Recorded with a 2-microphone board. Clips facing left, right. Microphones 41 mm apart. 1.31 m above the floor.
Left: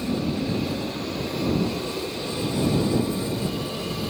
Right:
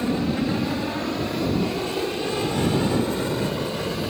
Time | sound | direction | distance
0.0 | an aircraft | 50° right (ahead or behind) | ?